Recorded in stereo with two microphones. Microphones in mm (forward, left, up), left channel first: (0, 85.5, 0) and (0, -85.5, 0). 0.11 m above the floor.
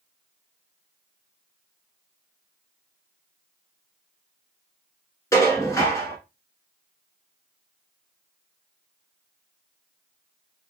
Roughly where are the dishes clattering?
Centre.